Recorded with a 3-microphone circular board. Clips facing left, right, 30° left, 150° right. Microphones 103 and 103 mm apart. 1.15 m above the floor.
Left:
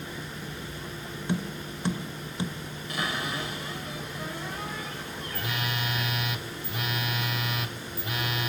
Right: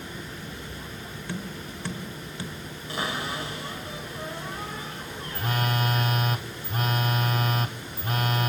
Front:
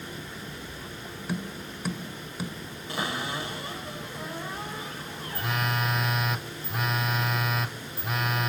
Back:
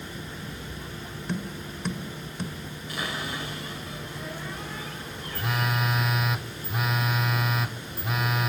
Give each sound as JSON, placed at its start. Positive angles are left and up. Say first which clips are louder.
{"t": 1.3, "sound": "tapping", "louder": "left 5 dB, back 1 dB", "azimuth_deg": 105, "distance_m": 0.9}
{"t": 2.9, "sound": "a cupboard door", "louder": "right 1 dB, front 2 dB", "azimuth_deg": -30, "distance_m": 5.0}
{"t": 5.3, "sound": "a phone buzzing", "louder": "right 6 dB, back 1 dB", "azimuth_deg": -60, "distance_m": 0.5}